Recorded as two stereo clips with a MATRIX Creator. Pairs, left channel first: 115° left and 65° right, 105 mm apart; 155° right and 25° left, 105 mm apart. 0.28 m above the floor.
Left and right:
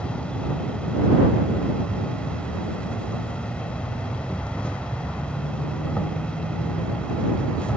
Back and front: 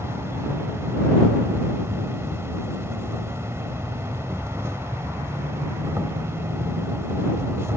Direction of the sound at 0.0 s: 45° left.